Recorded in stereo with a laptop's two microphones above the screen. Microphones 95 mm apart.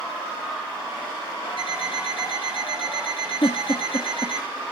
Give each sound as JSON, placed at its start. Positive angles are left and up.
{"t": 1.6, "sound": "an alarm clock", "side_deg": 65, "distance_m": 6.0}
{"t": 3.4, "sound": "a giggle", "side_deg": 50, "distance_m": 1.4}